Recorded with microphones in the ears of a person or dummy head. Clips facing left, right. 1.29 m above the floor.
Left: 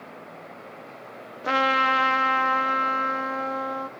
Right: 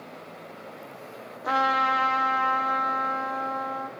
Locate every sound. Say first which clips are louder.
1.4 s a trumpet: left 2 dB; 25° left (ahead or behind), 0.7 m